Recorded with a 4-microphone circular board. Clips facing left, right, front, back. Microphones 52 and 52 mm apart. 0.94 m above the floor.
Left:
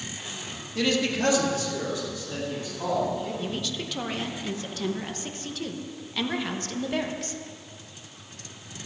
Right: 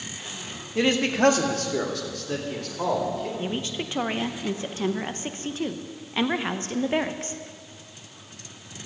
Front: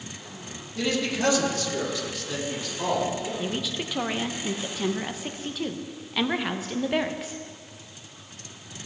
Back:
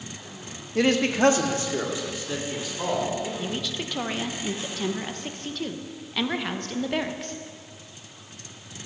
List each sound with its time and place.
0.8 s a man speaking: 155° right, 1.4 m; by 3.3 s 100° right, 3.5 m
3.4 s a woman speaking: 80° right, 0.9 m